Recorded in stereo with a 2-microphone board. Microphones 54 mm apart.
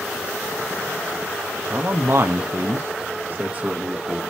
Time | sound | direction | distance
1.7 | a man speaking | 50° right (ahead or behind) | 1.2 m